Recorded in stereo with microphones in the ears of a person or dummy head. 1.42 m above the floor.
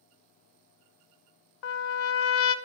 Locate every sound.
1.6 s a trumpet: 75° left (ahead or behind), 0.8 m